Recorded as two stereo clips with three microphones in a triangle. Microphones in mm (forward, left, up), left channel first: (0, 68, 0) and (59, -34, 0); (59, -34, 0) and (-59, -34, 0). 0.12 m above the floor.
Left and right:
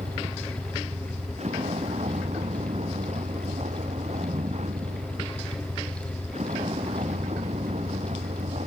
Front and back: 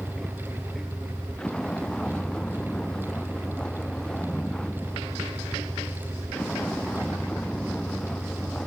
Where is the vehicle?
80° right.